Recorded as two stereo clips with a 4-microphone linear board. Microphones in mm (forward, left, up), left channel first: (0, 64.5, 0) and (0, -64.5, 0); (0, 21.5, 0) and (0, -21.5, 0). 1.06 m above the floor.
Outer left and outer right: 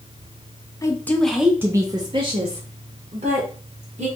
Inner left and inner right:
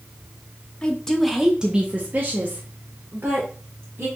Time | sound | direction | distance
0.8 | a woman speaking | 25° left (ahead or behind) | 0.6 m